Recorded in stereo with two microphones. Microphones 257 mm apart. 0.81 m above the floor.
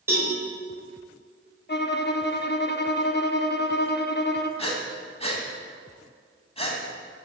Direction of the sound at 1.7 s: 40° left (ahead or behind).